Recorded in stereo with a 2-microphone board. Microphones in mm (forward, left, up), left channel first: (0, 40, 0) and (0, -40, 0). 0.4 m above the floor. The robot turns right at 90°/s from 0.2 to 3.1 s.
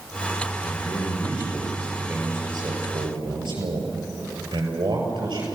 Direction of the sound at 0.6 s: 55° left.